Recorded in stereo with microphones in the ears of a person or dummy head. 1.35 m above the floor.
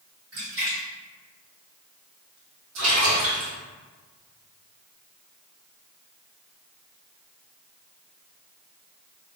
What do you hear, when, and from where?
0.3 s a splash: 50° right (ahead or behind), 1.5 m
2.8 s a splash: 70° right (ahead or behind), 1.2 m